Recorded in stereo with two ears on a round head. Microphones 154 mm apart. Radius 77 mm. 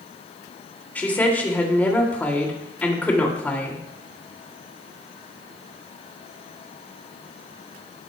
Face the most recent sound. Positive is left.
turn(degrees=10)  # may be behind; listen again after turning